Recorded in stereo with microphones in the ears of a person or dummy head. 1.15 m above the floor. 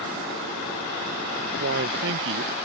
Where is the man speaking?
60° right (ahead or behind).